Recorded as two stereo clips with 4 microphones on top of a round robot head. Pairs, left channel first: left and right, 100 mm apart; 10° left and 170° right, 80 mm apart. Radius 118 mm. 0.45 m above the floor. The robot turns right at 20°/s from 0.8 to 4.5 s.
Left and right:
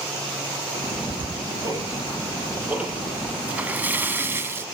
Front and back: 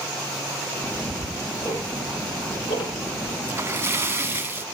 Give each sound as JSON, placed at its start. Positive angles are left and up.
{"t": 0.7, "sound": "ticking", "azimuth_deg": -55, "distance_m": 7.0}
{"t": 3.5, "sound": "a splash", "azimuth_deg": -150, "distance_m": 1.3}